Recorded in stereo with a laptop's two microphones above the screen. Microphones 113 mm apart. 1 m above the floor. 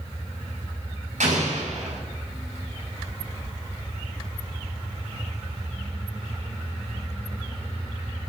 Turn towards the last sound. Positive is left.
turn(degrees=-85)